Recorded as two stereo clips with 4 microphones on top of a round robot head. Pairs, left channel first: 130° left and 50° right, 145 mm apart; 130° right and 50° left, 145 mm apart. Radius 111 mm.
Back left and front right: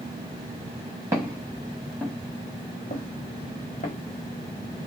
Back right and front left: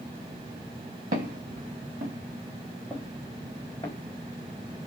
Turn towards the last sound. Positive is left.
turn(degrees=170)